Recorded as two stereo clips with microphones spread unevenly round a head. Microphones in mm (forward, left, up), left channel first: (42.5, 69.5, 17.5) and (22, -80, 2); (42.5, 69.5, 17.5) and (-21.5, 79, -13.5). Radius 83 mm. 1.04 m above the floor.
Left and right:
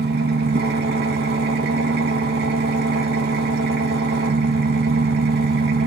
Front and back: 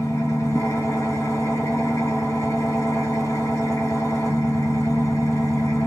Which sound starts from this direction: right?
An engine running, at 0.0 s.